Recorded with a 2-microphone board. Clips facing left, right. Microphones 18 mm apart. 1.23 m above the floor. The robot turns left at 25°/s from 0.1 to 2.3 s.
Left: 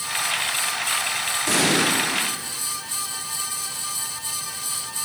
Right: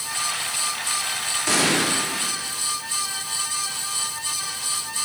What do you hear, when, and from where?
1.5 s an explosion: 20° right (ahead or behind), 2.5 m; by 1.9 s 10° right (ahead or behind), 2.5 m